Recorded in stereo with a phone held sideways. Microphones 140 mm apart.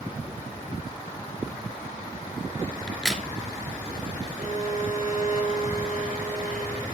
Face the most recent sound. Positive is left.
turn(degrees=55)  # may be behind; listen again after turning